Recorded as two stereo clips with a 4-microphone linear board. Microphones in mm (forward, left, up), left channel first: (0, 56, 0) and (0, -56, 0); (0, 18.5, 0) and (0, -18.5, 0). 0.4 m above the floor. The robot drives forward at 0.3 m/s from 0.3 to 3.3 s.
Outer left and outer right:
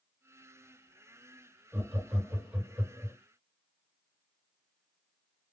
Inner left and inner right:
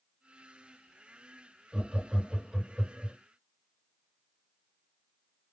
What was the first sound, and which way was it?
Laughter, 15° right (ahead or behind).